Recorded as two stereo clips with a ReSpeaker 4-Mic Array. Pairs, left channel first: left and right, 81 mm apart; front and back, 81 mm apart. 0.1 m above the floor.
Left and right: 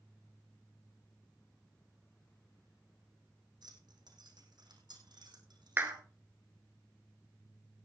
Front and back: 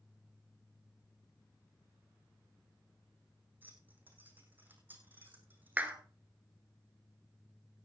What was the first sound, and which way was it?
Keys jangling, 115° right.